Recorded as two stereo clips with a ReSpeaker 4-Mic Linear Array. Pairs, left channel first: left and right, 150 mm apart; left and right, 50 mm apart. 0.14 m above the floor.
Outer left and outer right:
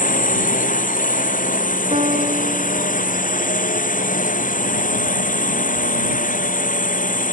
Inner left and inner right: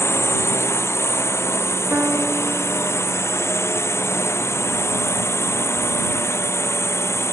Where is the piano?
45° right (ahead or behind).